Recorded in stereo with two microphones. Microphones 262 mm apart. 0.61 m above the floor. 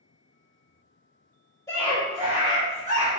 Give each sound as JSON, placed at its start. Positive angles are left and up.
{"t": 1.7, "sound": "a scream", "side_deg": 10, "distance_m": 1.3}